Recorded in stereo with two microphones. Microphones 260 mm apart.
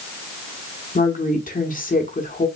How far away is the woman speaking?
About 1.1 m.